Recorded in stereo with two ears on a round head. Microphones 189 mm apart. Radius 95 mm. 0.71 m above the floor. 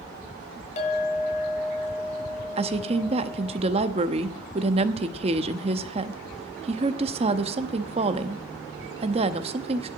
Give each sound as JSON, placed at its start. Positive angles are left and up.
{"t": 0.8, "sound": "a clink", "side_deg": 35, "distance_m": 2.5}
{"t": 2.6, "sound": "a woman speaking", "side_deg": -30, "distance_m": 0.7}